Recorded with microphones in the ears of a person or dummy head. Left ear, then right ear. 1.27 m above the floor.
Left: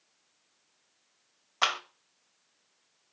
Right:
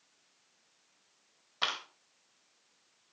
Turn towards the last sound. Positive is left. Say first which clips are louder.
# left 5 dB
turn(degrees=35)  # may be behind; listen again after turning